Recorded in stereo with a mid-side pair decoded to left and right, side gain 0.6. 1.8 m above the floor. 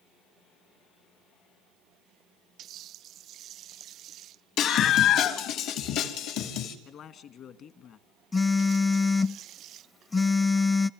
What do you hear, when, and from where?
4.6 s a scream: 65° left, 3 m; by 6.8 s 80° left, 5 m
6.8 s a man speaking: 55° left, 2.5 m
8.3 s a phone buzzing: 25° left, 0.7 m